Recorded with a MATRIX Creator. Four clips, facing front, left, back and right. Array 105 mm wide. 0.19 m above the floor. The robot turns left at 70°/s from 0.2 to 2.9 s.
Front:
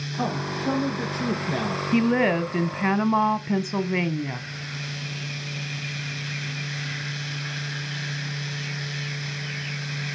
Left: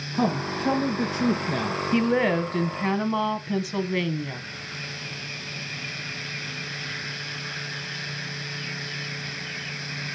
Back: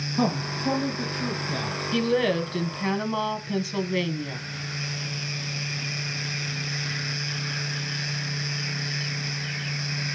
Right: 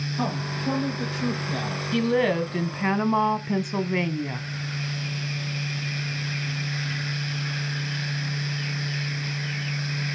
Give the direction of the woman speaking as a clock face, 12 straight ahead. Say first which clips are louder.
Even, front 2 dB; 11 o'clock.